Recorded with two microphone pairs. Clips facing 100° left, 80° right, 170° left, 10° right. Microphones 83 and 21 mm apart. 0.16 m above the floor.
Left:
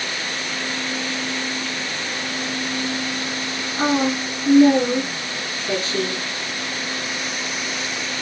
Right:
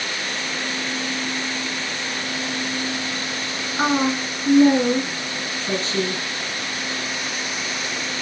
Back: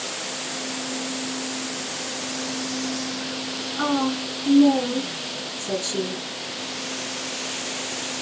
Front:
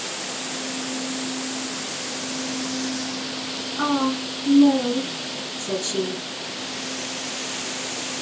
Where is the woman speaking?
100° right, 1.3 m.